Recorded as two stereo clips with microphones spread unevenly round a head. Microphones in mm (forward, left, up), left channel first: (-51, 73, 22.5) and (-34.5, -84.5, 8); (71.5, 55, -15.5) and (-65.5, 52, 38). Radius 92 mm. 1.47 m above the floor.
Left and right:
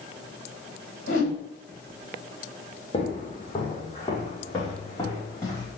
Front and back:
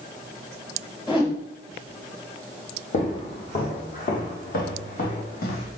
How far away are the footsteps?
About 3 m.